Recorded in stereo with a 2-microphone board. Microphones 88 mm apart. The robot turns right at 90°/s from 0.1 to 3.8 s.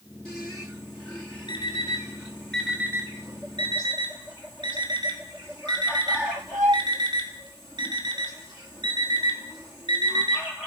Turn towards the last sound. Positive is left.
turn(degrees=-60)  # may be behind; listen again after turning